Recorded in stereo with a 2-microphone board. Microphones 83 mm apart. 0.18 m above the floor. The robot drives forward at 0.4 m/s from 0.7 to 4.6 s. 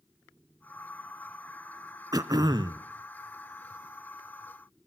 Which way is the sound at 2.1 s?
50° right (ahead or behind).